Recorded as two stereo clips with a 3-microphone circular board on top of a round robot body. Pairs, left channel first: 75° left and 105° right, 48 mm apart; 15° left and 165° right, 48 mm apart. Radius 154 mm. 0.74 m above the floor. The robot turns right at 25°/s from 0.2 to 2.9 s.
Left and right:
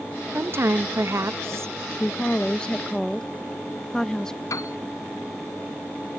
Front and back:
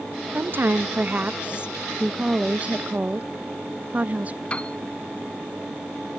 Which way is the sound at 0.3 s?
130° right.